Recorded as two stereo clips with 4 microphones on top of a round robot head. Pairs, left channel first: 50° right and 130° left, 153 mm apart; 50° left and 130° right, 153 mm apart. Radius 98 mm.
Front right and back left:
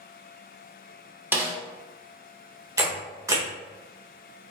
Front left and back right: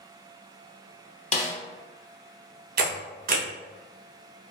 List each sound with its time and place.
1.3 s a snare drum: 55° left, 0.8 m
2.8 s a camera shutter: 160° right, 0.8 m